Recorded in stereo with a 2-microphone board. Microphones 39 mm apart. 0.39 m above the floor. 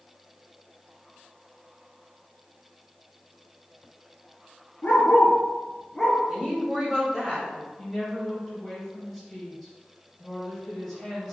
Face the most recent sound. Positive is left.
turn(degrees=5)  # may be behind; listen again after turning